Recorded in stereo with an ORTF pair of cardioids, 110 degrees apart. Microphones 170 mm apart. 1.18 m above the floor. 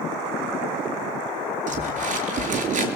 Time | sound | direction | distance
1.7 | crumpling | 50° right | 6 m